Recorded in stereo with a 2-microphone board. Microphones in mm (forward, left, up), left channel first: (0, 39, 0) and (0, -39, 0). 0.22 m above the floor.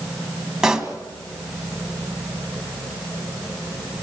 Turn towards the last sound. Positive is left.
turn(degrees=-10)  # may be behind; listen again after turning